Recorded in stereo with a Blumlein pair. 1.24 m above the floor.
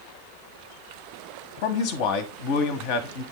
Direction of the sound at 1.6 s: 45° left.